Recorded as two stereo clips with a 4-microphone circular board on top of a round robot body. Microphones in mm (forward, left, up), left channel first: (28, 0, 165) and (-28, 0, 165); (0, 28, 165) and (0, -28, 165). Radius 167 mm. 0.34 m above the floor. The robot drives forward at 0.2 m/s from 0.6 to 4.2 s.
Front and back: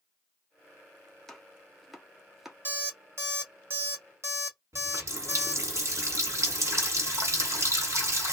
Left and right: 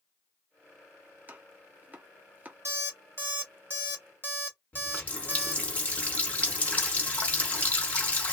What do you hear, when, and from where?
1.3 s chopping: 70° right, 1.1 m; by 2.5 s 100° right, 1.1 m
2.6 s an alarm clock: 130° right, 1.3 m; by 5.6 s 140° right, 1.5 m
4.7 s a running tap: 155° left, 1.3 m